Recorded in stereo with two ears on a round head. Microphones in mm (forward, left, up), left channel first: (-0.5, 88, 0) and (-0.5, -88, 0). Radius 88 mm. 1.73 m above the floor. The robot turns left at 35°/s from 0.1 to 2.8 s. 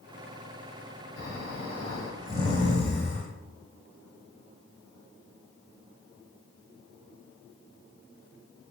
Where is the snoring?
105° left, 3.5 m; by 3.3 s 45° left, 3.5 m.